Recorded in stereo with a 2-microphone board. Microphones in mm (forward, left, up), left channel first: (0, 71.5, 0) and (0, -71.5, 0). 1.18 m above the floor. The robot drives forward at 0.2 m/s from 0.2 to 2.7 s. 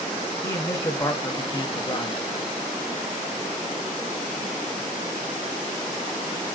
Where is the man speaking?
20° left (ahead or behind), 0.8 m; by 2.2 s 30° left (ahead or behind), 0.6 m.